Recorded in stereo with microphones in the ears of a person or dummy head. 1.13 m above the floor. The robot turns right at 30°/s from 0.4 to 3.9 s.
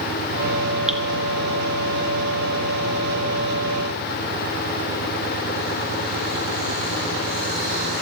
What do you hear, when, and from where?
0.9 s dripping: 5° right (ahead or behind), 1.3 m; by 1.0 s centre (ahead or behind), 1.3 m